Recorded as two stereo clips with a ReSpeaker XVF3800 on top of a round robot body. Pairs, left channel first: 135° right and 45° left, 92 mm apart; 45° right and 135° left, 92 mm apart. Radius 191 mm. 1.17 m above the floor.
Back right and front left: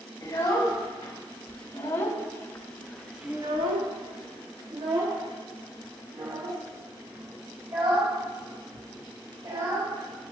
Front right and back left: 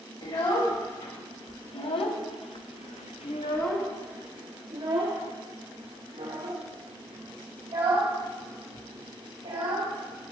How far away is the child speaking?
About 3 m.